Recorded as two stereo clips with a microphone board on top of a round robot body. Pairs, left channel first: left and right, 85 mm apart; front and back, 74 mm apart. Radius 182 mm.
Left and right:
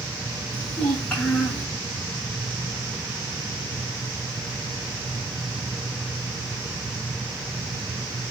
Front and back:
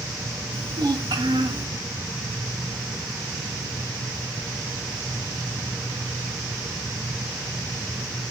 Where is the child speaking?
170° left, 8 m.